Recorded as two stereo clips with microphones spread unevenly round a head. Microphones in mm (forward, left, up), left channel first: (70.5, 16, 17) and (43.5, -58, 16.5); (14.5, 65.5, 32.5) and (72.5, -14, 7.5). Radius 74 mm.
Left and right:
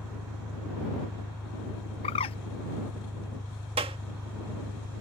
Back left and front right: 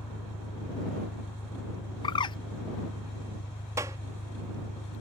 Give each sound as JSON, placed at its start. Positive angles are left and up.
{"t": 0.0, "sound": "an engine running", "azimuth_deg": 160}
{"t": 2.0, "sound": "a bird", "azimuth_deg": 90}
{"t": 3.8, "sound": "a clap", "azimuth_deg": -125}